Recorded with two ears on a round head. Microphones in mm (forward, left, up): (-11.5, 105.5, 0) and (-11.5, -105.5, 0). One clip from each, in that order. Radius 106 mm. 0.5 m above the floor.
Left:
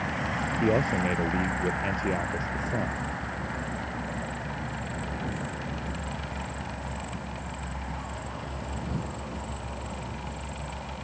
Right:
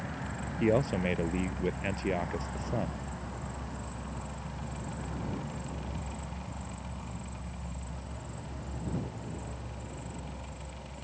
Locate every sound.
0.6 s a man speaking: 15° right (ahead or behind)